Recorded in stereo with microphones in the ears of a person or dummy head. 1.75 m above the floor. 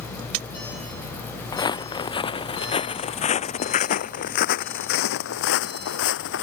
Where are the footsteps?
20° left (ahead or behind); by 6.4 s 65° left (ahead or behind).